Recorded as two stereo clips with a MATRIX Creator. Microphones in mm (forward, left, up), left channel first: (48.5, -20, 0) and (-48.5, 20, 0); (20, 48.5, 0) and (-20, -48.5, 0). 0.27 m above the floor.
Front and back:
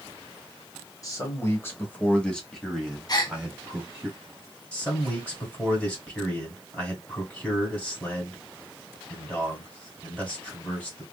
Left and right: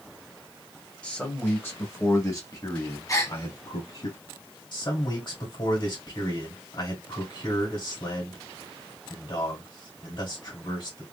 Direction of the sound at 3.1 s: 15° left.